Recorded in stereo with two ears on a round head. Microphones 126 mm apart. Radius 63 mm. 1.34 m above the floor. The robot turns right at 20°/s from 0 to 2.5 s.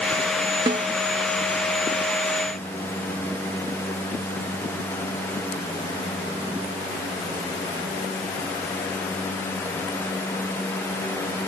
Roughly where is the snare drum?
Right.